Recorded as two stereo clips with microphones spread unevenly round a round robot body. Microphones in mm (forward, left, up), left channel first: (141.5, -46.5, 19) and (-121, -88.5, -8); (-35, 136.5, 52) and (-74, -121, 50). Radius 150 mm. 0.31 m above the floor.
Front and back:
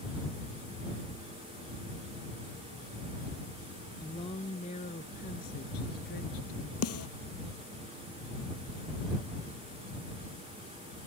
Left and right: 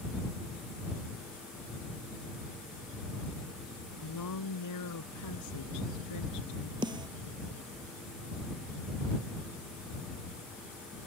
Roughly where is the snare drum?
Ahead right.